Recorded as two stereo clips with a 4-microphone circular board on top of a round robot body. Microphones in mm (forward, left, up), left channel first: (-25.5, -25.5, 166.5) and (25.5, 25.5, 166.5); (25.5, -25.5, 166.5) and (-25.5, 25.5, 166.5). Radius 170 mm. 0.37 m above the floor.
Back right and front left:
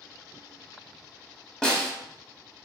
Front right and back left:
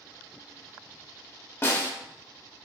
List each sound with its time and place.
1.6 s a snare drum: 60° right, 1.2 m